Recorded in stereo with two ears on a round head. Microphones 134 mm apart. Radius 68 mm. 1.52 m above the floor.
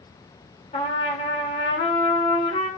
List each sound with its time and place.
0.7 s a trumpet: 40° left (ahead or behind), 2.5 m